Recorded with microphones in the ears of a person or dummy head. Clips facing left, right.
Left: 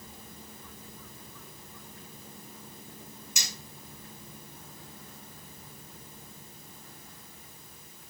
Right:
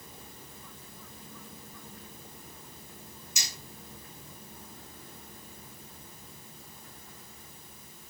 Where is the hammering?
55° left (ahead or behind), 8.5 m.